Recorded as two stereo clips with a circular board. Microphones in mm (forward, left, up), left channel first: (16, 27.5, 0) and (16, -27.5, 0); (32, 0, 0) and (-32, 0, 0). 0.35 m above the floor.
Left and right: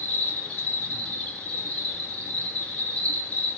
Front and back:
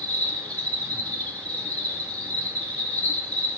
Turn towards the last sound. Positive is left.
turn(degrees=55)